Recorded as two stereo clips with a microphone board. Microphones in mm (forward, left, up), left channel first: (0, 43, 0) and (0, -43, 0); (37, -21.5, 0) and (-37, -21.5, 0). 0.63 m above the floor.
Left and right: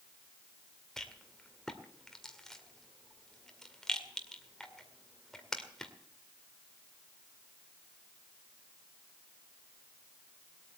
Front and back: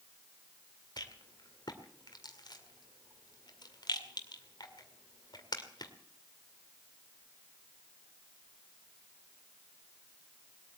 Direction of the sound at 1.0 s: 5° left.